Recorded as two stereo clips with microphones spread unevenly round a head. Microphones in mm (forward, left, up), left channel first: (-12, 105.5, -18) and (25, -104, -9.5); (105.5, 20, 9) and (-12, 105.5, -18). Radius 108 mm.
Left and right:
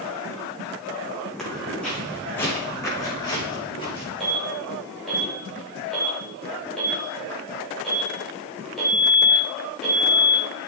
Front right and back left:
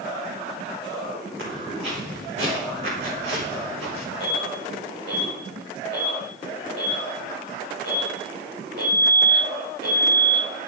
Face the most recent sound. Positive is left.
turn(degrees=-170)